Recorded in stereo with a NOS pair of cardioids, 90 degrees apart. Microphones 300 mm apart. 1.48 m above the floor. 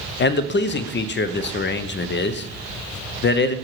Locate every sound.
0.2 s a man speaking: 40° left, 0.5 m